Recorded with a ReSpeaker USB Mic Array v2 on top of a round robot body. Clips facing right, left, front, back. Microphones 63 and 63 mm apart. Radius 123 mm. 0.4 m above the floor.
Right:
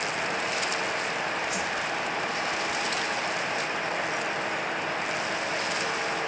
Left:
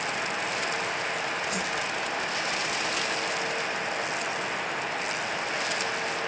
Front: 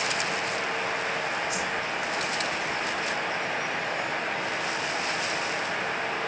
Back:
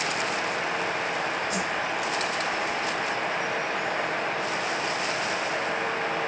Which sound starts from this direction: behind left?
A whoosh, at 1.5 s.